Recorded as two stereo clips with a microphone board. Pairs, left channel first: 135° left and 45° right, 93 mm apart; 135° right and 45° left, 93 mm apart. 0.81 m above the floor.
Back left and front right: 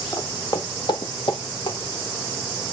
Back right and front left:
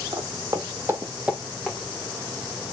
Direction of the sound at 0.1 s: 80° left.